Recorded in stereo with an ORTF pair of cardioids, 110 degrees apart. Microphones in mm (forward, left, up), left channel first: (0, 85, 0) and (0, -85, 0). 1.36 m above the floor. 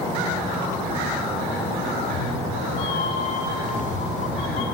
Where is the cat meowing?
45° left, 1.6 m.